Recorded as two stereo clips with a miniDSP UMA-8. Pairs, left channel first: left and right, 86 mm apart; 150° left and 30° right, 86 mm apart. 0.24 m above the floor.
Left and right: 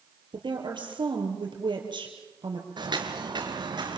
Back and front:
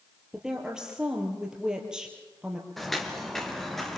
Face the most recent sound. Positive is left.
turn(degrees=-125)